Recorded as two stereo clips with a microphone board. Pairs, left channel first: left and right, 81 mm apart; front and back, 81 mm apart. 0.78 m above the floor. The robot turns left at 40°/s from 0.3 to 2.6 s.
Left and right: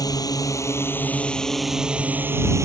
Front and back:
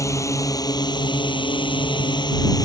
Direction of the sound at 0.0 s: 50° left.